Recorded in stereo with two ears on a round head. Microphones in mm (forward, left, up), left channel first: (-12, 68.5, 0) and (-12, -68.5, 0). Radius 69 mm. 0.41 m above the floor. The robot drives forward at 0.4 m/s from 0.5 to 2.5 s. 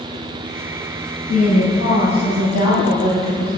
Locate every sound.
1.3 s a woman speaking: 60° left (ahead or behind), 1.9 m; by 3.5 s 65° left (ahead or behind), 1.8 m